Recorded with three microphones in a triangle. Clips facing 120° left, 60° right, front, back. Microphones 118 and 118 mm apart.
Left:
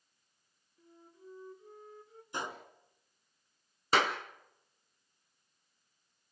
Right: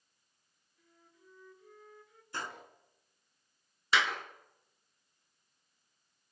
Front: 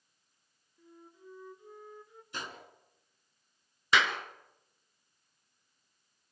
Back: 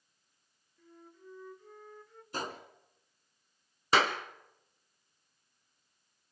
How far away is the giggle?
No giggle in this recording.